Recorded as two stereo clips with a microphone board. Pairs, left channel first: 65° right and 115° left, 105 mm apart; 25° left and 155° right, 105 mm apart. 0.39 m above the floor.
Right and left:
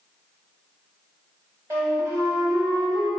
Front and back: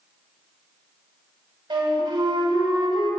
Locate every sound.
1.7 s a flute: 170° left, 2.5 m